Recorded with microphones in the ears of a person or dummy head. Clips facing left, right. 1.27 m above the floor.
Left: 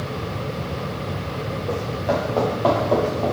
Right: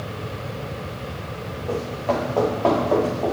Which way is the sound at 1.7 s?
20° left (ahead or behind).